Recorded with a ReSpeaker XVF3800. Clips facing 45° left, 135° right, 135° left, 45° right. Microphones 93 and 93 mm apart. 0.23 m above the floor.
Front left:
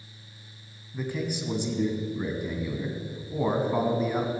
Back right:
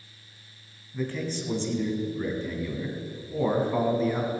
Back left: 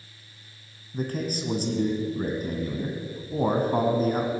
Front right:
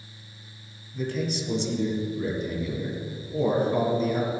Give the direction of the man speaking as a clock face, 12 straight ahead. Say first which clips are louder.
Even, even; 8 o'clock.